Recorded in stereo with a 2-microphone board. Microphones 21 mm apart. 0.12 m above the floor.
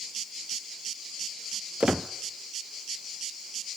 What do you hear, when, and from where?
1.8 s a squeak: 60° right (ahead or behind), 0.9 m